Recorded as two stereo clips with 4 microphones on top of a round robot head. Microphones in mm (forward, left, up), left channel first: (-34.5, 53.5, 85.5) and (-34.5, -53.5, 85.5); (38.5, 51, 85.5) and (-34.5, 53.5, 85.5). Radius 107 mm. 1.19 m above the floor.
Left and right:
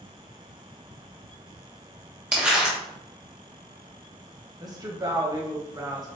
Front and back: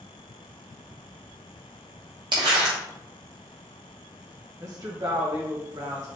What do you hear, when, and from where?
2.3 s crumpling: 165° right, 0.7 m
4.6 s a woman speaking: 140° right, 1.6 m